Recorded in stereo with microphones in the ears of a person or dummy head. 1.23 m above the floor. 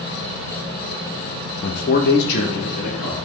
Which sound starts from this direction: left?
A man speaking, at 1.6 s.